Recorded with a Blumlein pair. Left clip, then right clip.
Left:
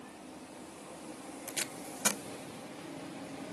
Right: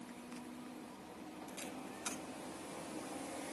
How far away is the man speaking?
No man speaking in this recording.